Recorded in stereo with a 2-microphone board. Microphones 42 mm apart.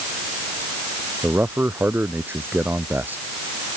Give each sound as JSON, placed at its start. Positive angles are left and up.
{"t": 1.2, "sound": "a man speaking", "side_deg": -50}